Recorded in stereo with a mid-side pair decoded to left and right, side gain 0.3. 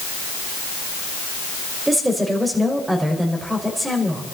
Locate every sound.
1.9 s a woman speaking: 25° right, 5.5 m